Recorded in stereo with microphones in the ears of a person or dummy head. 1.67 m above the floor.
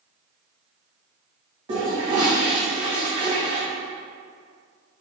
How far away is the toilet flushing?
About 1.8 m.